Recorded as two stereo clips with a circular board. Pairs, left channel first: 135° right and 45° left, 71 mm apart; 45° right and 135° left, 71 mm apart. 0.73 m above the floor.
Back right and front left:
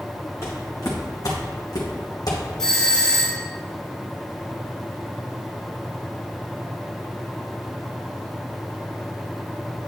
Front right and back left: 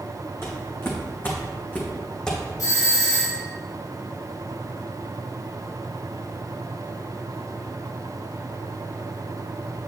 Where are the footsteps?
95° right, 3 m; by 2.4 s 125° right, 2 m.